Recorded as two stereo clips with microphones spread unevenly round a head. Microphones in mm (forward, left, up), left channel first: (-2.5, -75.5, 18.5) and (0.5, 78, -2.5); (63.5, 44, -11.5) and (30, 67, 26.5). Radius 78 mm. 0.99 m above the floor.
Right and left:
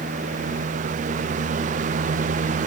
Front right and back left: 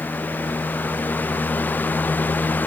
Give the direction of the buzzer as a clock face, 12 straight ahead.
No buzzer in this recording.